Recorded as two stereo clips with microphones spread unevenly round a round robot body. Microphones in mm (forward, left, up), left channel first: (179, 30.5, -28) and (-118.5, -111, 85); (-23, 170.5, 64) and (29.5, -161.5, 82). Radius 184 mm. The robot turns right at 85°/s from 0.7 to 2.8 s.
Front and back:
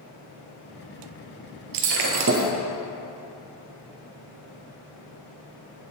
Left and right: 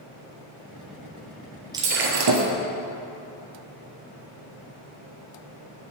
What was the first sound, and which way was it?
Breaking glass, 160° right.